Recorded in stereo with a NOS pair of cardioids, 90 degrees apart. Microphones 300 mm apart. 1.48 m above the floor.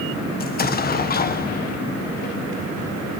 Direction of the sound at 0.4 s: 35° left.